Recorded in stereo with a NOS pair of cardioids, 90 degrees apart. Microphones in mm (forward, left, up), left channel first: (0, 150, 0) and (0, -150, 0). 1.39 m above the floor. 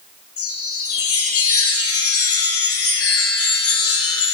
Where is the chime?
50° left, 1.0 m.